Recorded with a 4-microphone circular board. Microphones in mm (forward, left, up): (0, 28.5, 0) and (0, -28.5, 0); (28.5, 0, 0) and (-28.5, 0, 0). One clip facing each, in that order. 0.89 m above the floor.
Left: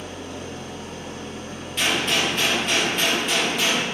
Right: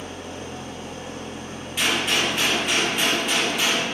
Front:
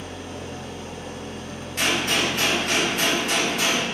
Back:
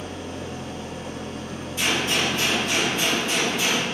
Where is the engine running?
150° right, 1.1 m.